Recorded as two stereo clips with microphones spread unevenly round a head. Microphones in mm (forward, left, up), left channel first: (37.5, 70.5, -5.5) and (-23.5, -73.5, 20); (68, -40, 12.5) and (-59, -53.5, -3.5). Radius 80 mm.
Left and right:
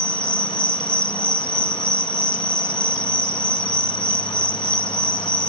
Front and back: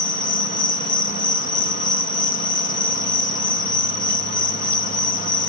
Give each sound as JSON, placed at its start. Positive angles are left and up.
{"t": 0.0, "sound": "an insect", "azimuth_deg": -15}